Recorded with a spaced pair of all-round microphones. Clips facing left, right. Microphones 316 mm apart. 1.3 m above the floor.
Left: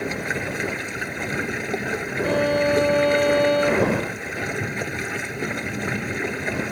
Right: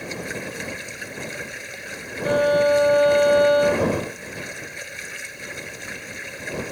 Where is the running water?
65° left (ahead or behind).